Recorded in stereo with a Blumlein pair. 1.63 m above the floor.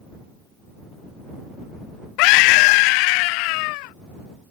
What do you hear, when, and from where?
2.2 s a scream: 45° left